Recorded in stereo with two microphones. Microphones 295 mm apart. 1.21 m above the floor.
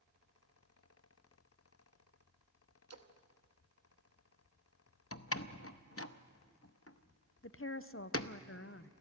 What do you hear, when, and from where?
2.9 s a splash: 55° right (ahead or behind), 1.1 m
5.1 s a door slam: 45° left (ahead or behind), 0.7 m
7.4 s a woman speaking: 45° left (ahead or behind), 0.6 m